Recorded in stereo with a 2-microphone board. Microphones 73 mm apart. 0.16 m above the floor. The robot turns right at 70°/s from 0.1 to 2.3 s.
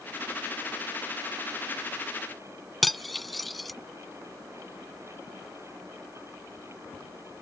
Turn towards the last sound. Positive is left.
turn(degrees=0)  # may be behind; listen again after turning